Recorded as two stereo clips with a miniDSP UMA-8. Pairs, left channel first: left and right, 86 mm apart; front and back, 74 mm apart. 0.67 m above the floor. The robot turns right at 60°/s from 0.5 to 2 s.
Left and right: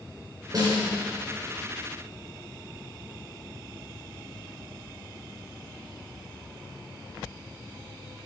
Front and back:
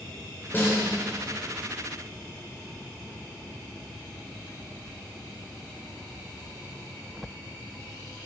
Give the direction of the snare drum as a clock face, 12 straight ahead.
2 o'clock.